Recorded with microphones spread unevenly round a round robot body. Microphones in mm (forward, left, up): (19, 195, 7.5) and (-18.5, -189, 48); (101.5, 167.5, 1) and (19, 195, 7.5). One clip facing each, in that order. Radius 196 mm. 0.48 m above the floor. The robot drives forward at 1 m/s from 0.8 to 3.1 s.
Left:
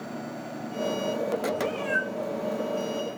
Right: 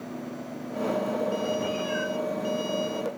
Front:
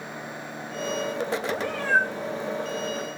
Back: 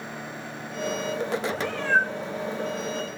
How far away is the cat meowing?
About 6.5 m.